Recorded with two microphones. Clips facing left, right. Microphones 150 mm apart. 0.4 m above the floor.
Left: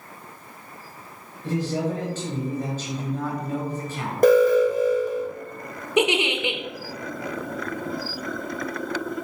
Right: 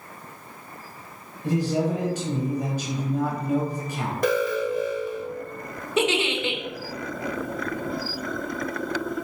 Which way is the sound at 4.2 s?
45° left (ahead or behind).